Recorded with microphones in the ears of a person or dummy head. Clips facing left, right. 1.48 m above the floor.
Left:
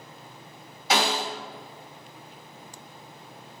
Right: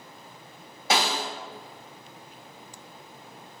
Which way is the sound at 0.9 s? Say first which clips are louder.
Left 1 dB; 45° right (ahead or behind).